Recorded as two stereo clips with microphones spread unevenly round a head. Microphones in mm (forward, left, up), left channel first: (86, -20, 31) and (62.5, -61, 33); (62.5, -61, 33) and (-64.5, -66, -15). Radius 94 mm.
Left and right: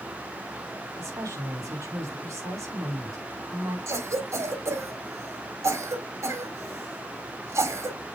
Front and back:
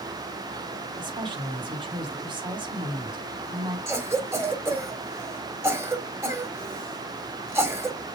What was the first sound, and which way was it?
A woman speaking, 130° right.